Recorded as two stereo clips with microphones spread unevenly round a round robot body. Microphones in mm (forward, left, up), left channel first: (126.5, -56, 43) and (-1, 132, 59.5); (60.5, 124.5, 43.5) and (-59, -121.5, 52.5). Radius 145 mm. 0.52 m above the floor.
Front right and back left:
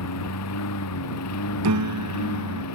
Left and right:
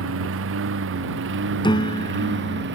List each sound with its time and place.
0.0 s a lawn mower: 70° right; by 2.8 s 65° right
1.6 s a piano: 140° left